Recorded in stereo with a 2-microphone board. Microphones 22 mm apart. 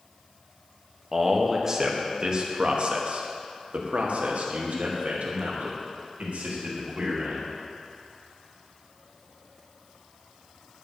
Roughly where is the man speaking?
Centre.